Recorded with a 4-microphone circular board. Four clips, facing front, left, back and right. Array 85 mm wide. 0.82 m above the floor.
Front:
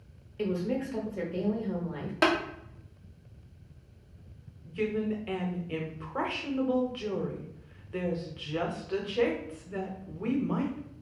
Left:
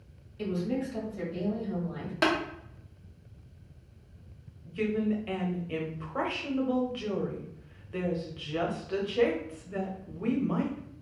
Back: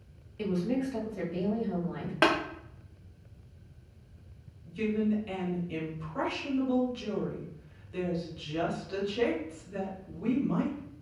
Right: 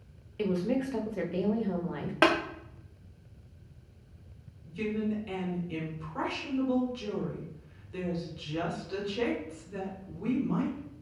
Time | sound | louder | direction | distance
0.4 | a woman speaking | right 2 dB, even | 75° right | 0.8 m
2.2 | tapping | right 3 dB, even | 125° right | 0.8 m
4.7 | a woman speaking | left 3 dB, back 1 dB | 45° left | 0.7 m